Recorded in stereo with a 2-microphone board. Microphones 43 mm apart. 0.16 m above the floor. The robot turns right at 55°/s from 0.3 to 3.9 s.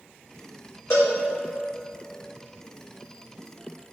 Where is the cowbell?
75° left (ahead or behind), 3 m; by 1.2 s 60° left (ahead or behind), 3 m.